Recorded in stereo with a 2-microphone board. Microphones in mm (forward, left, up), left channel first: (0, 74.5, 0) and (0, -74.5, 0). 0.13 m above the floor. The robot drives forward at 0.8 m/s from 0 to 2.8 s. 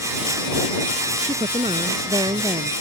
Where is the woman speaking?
40° right (ahead or behind); by 2.7 s 30° right (ahead or behind).